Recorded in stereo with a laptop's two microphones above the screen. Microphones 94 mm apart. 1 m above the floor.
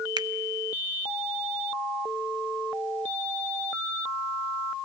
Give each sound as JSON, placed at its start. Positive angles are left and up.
{"t": 0.2, "sound": "a finger snap", "side_deg": -50, "distance_m": 0.7}